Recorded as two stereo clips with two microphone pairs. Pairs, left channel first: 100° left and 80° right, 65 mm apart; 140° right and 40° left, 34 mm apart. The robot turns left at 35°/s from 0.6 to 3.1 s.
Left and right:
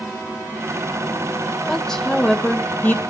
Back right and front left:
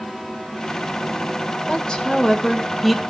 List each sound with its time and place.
1.7 s a woman speaking: straight behind, 1.7 m; by 3.0 s 135° left, 1.7 m